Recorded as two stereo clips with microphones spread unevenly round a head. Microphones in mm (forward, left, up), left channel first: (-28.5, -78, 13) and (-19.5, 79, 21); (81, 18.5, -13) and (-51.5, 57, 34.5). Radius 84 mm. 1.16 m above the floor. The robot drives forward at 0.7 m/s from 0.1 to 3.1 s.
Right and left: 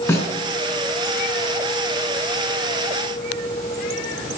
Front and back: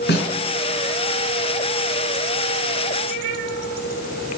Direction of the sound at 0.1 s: 15° right.